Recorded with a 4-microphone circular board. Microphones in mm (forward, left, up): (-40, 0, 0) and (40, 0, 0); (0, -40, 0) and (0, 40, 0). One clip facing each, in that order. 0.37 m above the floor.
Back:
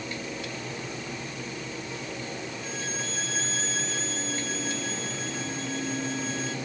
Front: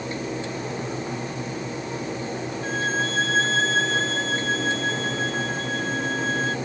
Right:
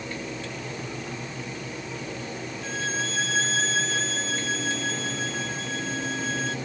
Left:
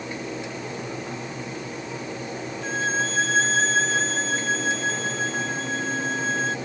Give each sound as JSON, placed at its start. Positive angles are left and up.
{"t": 2.6, "sound": "a violin", "azimuth_deg": 35}